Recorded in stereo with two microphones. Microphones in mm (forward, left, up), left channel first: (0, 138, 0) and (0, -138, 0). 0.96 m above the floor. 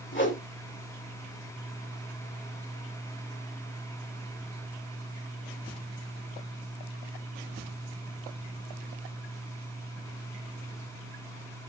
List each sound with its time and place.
0.1 s a whoosh: 45° left (ahead or behind), 2.5 m